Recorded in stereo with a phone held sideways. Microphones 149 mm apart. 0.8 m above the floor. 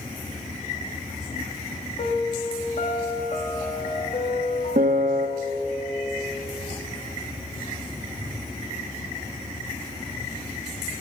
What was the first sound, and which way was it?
A piano, 60° left (ahead or behind).